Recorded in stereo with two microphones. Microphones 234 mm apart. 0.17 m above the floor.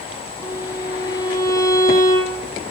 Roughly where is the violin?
Centre.